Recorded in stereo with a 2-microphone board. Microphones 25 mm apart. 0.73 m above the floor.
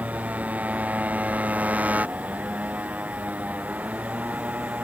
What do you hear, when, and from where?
0.0 s a motorcycle: 85° right